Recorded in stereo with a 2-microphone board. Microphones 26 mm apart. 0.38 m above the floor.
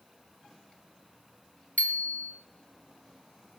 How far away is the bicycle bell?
About 2 m.